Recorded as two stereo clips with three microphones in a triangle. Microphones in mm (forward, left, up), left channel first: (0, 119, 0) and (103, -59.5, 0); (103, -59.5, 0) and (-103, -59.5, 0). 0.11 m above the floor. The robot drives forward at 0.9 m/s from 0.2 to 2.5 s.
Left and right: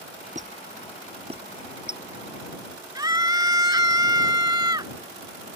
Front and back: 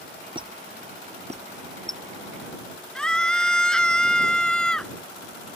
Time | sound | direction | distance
0.3 | a squeak | 115° right | ?
3.0 | a scream | 80° right | ?